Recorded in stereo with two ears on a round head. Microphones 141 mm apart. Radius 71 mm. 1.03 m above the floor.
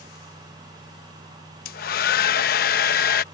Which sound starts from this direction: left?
A hair dryer, at 1.6 s.